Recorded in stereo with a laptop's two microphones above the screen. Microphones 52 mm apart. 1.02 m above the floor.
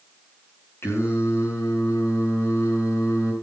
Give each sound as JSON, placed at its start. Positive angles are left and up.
{"t": 0.8, "sound": "singing", "side_deg": 55, "distance_m": 7.5}